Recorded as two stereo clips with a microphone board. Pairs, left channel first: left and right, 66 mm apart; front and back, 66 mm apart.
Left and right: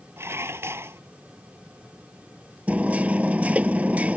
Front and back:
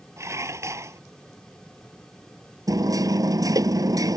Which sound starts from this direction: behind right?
Dishes clattering, at 0.2 s.